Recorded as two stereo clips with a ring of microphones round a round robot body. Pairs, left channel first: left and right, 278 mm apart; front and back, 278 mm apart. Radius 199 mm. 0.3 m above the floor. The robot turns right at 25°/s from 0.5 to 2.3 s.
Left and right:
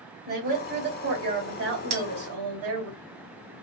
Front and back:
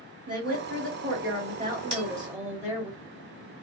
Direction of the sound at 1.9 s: 115° right.